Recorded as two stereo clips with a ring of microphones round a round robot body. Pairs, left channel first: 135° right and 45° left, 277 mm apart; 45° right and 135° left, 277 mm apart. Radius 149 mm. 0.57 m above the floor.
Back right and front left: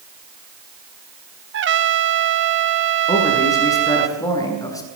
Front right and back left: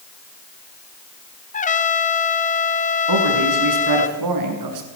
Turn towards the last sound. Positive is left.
turn(degrees=145)